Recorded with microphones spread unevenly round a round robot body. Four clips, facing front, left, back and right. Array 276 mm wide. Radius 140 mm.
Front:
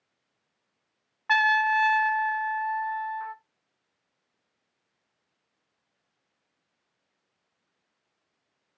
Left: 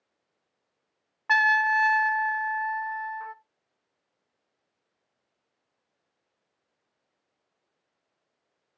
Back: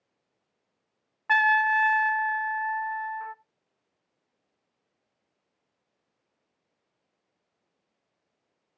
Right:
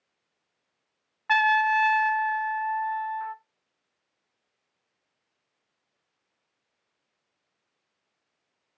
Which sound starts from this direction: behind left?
A trumpet, at 1.3 s.